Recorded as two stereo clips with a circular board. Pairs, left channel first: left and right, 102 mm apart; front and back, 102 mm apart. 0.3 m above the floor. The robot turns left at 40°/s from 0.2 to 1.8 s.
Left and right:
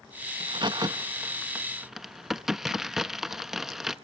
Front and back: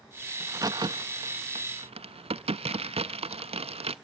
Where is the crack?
120° right, 0.5 m; by 4.0 s 175° right, 0.5 m.